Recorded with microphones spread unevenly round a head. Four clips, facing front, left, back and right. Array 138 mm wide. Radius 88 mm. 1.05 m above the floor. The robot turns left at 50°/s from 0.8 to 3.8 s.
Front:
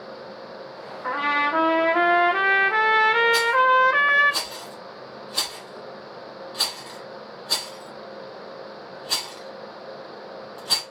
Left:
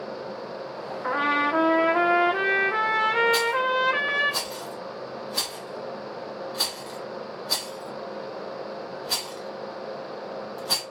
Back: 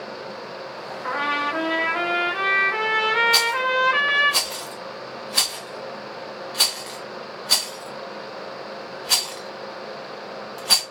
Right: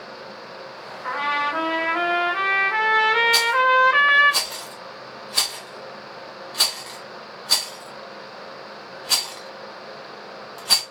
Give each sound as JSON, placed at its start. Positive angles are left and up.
{"t": 1.0, "sound": "a trumpet", "azimuth_deg": 70, "distance_m": 0.7}
{"t": 3.3, "sound": "a rattle", "azimuth_deg": 145, "distance_m": 0.6}